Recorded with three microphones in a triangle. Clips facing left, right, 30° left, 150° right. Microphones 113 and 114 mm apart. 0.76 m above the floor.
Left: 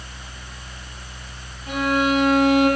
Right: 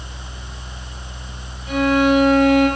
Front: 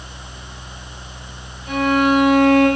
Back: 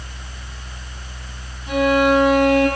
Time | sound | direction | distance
1.7 | a violin | 145° left | 7 m